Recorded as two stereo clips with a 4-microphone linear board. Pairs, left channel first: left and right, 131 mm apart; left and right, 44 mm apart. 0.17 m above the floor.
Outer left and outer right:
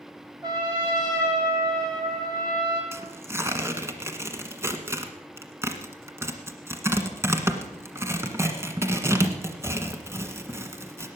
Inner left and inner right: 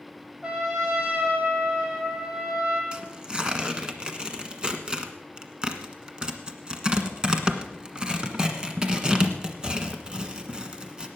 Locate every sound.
0.4 s a trumpet: 30° right (ahead or behind), 4.5 m
2.9 s tearing paper: 20° right (ahead or behind), 1.4 m